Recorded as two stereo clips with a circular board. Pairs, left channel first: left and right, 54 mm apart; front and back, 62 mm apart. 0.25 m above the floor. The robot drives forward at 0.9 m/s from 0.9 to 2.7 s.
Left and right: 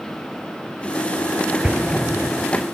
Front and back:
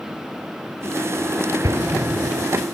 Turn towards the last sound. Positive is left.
turn(degrees=-165)